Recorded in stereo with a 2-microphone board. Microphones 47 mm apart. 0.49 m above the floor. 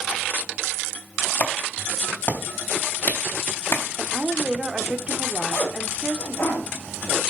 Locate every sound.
1.4 s a clap: 45° left (ahead or behind), 3 m
4.0 s a woman speaking: 25° right (ahead or behind), 1.3 m
5.5 s a zipper: 55° left (ahead or behind), 9 m